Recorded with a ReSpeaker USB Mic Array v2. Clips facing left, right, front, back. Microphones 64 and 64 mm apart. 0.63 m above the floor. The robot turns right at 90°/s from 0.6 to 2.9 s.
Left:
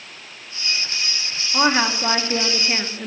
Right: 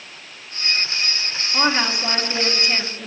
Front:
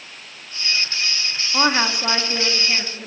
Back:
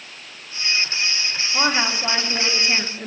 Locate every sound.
1.5 s a woman speaking: 15° left, 0.7 m; by 3.1 s 135° left, 0.7 m